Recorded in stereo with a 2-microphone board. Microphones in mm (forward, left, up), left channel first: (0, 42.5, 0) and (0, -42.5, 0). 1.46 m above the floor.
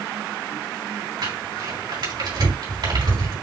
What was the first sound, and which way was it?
Crumpling, 60° right (ahead or behind).